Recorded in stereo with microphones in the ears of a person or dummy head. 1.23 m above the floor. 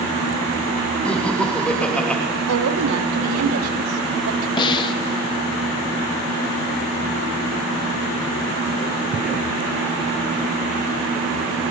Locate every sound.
1.1 s laughter: 5° left (ahead or behind), 2.5 m
2.5 s a woman speaking: 75° right (ahead or behind), 1.9 m
4.6 s a snare drum: 20° left (ahead or behind), 0.9 m